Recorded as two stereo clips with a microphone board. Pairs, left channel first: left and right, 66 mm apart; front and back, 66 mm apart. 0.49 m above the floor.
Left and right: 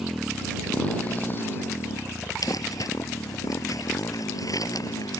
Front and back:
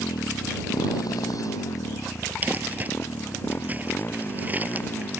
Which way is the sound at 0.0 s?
5° right.